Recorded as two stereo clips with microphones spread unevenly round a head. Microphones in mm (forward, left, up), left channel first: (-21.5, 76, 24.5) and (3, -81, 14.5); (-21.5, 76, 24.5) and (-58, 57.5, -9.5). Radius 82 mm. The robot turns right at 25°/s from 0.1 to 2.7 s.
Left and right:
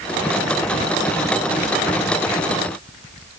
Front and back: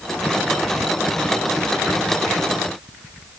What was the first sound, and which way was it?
Only background noise.